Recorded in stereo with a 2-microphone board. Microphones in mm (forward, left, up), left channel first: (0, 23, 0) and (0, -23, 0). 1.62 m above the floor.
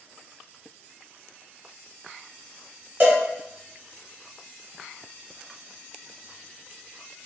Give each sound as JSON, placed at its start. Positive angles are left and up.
{"t": 3.0, "sound": "a cowbell", "side_deg": -45, "distance_m": 0.9}